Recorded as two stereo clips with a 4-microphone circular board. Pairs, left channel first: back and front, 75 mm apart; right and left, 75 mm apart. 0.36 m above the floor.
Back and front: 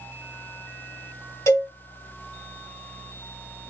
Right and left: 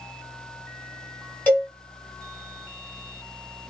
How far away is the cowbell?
About 2 m.